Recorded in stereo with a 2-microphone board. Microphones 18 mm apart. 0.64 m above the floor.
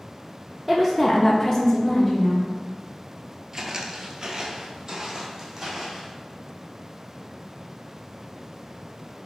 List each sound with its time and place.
0.7 s a woman speaking: centre (ahead or behind), 0.9 m; by 2.5 s 25° left (ahead or behind), 2 m
3.5 s footsteps: 30° right (ahead or behind), 0.7 m; by 6.1 s 25° right (ahead or behind), 2 m